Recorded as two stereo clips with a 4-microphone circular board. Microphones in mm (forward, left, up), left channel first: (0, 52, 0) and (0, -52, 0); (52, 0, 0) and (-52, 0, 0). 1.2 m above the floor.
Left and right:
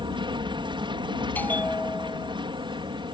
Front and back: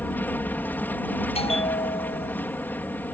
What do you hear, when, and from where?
0.0 s an aircraft: 70° right
1.4 s a bell: 15° left